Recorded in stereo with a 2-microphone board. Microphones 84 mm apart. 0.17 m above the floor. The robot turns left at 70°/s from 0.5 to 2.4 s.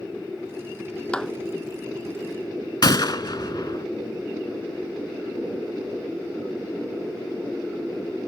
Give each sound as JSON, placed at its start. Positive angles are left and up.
{"t": 1.1, "sound": "a clap", "side_deg": 10}
{"t": 2.8, "sound": "a gunshot", "side_deg": 55}